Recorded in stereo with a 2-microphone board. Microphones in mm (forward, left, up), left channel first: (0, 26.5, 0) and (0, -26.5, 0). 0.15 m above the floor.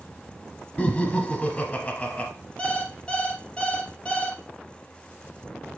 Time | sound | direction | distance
0.8 | laughter | 25° left (ahead or behind) | 1.6 m
2.6 | an alarm clock | 20° left (ahead or behind) | 1.9 m